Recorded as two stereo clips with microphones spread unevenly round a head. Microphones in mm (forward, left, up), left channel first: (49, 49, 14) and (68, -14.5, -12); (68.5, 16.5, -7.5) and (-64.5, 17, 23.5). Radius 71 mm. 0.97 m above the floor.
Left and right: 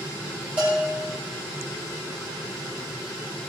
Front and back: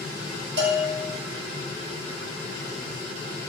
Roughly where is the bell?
Behind.